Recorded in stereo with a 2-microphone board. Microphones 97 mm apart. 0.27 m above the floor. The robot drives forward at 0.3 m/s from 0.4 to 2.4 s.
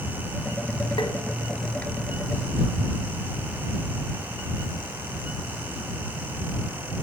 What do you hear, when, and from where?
1.0 s tapping: 65° left (ahead or behind), 0.6 m; by 1.1 s 60° left (ahead or behind), 0.6 m